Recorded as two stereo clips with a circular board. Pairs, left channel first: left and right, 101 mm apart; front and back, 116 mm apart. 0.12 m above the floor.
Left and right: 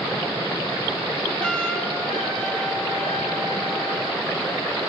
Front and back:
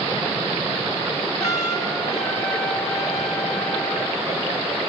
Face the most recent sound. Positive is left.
turn(degrees=10)